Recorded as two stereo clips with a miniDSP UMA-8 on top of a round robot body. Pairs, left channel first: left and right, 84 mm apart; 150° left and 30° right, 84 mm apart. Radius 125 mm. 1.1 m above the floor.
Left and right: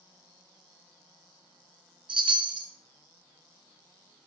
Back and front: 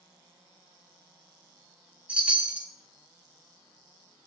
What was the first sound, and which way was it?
A chime, 105° right.